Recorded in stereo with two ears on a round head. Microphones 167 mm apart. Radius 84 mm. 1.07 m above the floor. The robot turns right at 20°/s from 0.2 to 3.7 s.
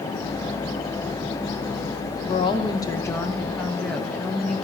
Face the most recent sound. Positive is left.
turn(degrees=5)  # may be behind; listen again after turning